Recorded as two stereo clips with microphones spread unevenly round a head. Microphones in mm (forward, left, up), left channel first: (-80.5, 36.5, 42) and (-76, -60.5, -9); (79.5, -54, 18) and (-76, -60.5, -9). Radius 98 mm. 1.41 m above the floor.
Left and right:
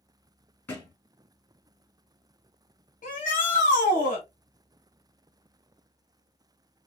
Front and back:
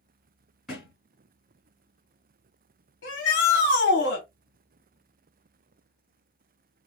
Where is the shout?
45° left, 1.4 m.